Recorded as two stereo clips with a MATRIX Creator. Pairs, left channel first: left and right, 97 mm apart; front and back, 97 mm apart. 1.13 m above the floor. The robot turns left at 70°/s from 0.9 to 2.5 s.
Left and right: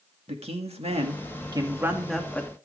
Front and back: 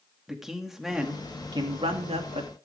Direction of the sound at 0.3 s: 95° right.